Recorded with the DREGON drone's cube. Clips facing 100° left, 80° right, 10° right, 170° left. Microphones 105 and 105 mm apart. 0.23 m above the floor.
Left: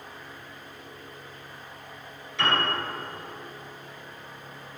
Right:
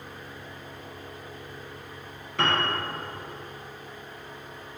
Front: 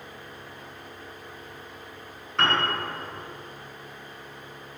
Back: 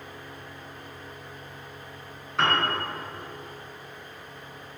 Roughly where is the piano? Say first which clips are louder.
Even, even; right.